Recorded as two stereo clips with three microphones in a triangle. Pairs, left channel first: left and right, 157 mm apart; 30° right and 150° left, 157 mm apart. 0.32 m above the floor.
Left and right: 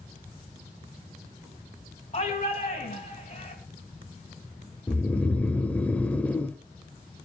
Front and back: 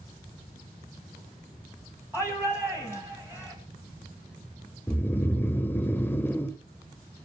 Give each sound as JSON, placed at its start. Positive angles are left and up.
{"t": 2.1, "sound": "a shout", "azimuth_deg": 75, "distance_m": 2.5}
{"t": 4.9, "sound": "snoring", "azimuth_deg": 25, "distance_m": 1.0}